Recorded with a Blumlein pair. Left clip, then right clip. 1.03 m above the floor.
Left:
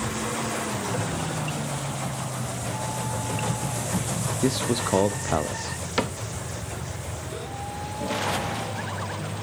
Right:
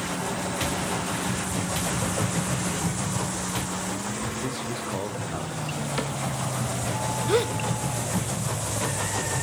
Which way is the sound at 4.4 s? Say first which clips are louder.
Left 5 dB; 30° left.